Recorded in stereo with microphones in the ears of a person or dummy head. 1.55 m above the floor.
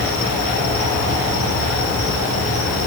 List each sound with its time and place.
0.0 s an insect: 40° left (ahead or behind), 0.8 m